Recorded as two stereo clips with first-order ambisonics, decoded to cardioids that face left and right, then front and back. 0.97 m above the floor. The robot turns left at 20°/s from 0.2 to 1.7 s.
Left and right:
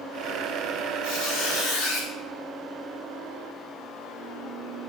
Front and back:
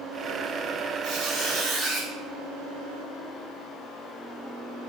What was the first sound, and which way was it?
A squeak, 120° left.